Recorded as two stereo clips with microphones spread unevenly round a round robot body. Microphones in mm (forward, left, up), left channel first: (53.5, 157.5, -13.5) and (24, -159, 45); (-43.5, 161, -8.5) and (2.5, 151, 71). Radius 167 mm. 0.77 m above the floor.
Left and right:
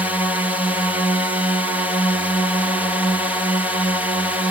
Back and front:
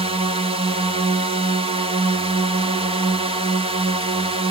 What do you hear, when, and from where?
0.0 s a drone: 10° left